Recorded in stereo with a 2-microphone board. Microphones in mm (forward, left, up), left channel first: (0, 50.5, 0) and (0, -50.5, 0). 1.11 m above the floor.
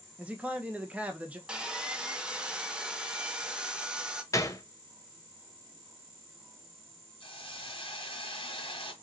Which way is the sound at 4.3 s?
30° left (ahead or behind).